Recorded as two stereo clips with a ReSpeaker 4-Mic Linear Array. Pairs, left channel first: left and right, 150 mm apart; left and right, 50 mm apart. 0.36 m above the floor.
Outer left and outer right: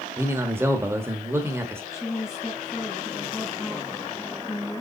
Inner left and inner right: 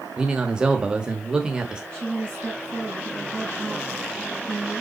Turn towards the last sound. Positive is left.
turn(degrees=20)  # may be behind; listen again after turning